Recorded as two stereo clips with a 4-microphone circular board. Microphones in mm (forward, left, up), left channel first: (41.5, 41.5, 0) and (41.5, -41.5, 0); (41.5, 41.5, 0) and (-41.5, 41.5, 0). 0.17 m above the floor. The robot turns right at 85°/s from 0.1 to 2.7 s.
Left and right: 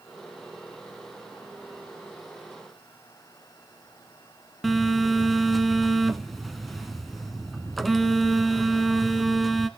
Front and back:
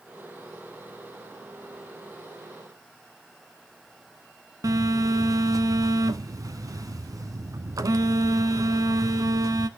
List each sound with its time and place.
4.6 s a phone buzzing: straight behind, 0.5 m